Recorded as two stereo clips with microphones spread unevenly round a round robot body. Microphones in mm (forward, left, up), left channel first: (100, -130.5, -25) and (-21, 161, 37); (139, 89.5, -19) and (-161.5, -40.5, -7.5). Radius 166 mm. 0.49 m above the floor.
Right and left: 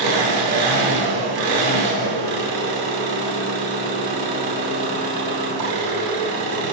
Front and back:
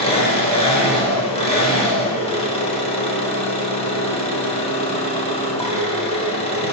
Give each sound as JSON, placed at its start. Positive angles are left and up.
{"t": 0.0, "sound": "an engine running", "azimuth_deg": 95, "distance_m": 2.5}